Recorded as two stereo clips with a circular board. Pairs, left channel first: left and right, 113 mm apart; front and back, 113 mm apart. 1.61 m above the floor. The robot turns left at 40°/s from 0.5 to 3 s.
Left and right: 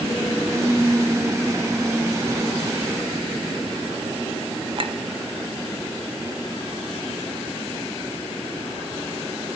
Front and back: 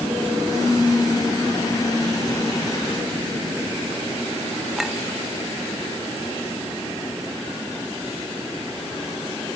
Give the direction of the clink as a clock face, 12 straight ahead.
3 o'clock.